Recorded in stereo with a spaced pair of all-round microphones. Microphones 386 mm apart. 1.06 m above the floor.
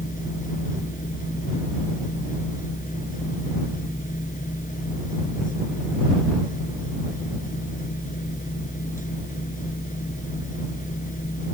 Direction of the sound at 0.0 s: 20° left (ahead or behind).